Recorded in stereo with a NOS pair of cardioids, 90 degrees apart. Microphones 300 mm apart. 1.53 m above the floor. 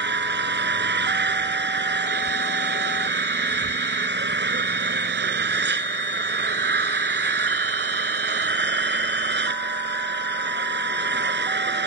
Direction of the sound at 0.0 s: 35° right.